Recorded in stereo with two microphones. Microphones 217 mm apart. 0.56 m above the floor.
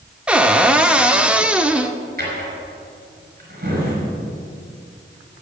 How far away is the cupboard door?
About 0.6 m.